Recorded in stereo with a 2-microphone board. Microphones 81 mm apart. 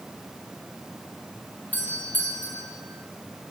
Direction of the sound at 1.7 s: 20° left (ahead or behind).